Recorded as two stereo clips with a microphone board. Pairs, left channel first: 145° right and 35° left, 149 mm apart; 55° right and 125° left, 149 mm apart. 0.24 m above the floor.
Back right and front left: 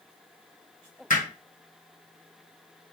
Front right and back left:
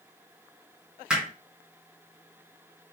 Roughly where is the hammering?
Behind right.